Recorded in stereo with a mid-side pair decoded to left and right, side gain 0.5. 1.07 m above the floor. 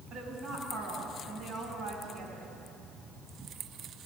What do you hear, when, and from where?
0.1 s a woman speaking: 60° right, 7 m